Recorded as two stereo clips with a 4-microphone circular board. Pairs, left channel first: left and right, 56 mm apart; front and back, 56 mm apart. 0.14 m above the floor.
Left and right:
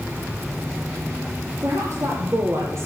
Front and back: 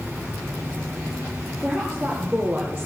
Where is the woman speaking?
80° right, 3 m; by 2.9 s 110° right, 2.5 m.